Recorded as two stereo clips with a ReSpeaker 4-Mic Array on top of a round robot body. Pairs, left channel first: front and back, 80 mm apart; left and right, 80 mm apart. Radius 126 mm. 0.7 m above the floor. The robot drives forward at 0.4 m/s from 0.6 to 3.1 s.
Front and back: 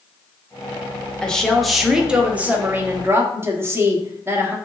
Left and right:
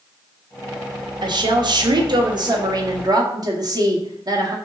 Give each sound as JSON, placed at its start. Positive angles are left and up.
{"t": 1.2, "sound": "a woman speaking", "azimuth_deg": -80, "distance_m": 1.1}